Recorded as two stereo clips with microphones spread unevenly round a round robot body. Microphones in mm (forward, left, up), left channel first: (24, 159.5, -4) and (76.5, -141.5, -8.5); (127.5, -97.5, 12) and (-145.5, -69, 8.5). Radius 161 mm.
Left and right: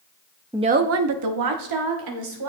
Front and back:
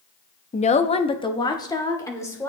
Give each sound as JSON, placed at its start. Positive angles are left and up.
{"t": 0.5, "sound": "a woman speaking", "azimuth_deg": -10, "distance_m": 0.5}